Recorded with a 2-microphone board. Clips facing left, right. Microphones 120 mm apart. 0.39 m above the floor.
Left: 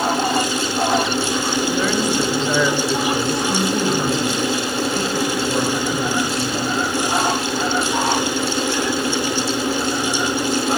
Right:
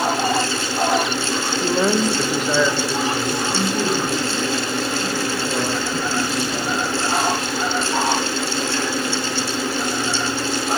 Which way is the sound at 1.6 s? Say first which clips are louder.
Right 4 dB; 45° right (ahead or behind).